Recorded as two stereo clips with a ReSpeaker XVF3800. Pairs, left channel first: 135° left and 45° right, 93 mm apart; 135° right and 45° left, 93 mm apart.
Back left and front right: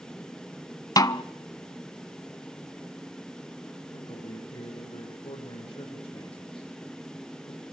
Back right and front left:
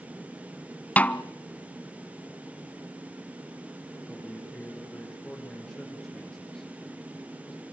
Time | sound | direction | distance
1.0 | a snare drum | 160° left | 0.5 m
3.9 | a man speaking | 140° left | 8 m